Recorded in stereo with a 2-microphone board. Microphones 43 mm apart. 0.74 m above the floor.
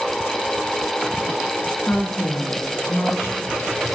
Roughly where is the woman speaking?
Left.